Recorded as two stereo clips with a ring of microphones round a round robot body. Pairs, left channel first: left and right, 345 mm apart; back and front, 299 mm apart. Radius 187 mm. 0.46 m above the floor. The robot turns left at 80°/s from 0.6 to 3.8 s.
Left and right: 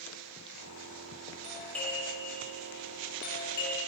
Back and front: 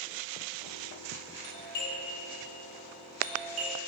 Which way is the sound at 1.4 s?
160° right.